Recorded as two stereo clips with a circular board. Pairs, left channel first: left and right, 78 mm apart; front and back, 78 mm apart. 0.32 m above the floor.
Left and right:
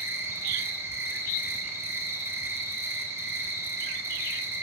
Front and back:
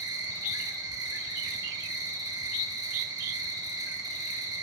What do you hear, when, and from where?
0.0 s an insect: 145° right, 1.2 m